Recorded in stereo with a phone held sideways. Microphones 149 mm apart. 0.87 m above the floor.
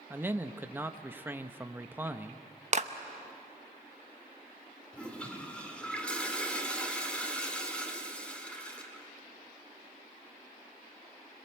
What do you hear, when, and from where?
0.1 s a man speaking: 15° right (ahead or behind), 0.7 m
2.7 s a clap: 50° right (ahead or behind), 0.9 m
4.9 s a toilet flushing: 5° left (ahead or behind), 2 m